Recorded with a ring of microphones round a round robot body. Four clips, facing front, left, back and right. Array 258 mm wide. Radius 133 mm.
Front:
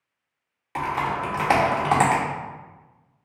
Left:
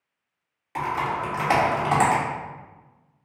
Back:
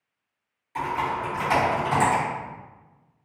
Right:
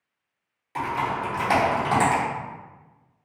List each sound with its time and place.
0.8 s typing on a keyboard: 10° left, 0.9 m